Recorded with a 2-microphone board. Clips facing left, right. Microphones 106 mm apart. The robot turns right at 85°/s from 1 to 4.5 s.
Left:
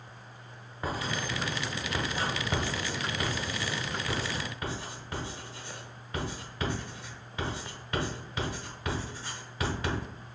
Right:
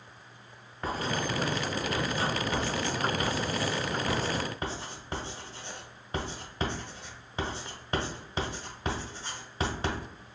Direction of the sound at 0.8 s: 5° left (ahead or behind).